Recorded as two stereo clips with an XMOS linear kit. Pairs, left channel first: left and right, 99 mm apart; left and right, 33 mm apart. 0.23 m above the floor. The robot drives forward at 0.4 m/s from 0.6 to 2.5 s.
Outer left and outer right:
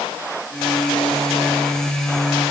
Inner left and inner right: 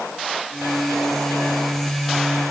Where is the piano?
No piano in this recording.